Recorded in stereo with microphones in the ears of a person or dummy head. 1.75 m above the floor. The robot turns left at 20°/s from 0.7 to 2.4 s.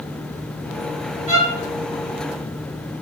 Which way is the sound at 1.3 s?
5° right (ahead or behind).